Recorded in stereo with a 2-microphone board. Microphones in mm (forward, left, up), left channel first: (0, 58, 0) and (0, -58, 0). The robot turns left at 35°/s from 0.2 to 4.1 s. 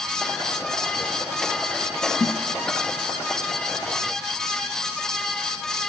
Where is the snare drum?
25° left (ahead or behind), 0.6 m; by 2.4 s 30° left (ahead or behind), 0.6 m.